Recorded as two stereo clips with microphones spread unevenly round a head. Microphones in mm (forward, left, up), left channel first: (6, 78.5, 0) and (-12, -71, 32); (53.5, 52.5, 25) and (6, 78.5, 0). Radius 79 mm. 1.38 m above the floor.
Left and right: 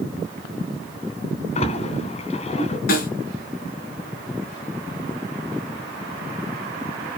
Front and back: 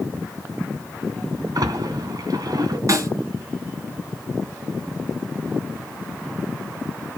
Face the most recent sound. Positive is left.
turn(degrees=115)